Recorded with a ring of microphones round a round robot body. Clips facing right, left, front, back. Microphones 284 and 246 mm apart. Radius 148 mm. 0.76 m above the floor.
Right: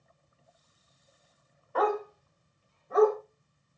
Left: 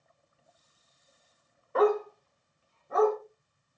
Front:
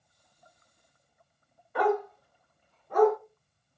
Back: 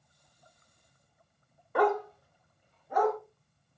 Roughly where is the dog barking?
Behind left.